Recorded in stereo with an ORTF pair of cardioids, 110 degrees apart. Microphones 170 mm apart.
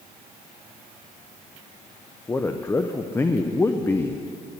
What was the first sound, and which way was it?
A man speaking, 15° left.